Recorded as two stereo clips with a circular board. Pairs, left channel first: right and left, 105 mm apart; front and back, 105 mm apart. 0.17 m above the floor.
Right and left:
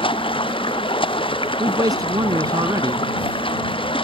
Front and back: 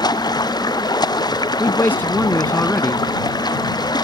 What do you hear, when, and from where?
0.0 s running water: 50° right
1.6 s a man speaking: 60° left